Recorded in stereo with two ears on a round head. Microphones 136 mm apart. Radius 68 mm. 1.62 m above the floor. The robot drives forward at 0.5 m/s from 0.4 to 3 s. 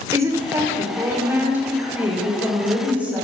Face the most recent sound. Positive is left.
turn(degrees=-10)  # may be behind; listen again after turning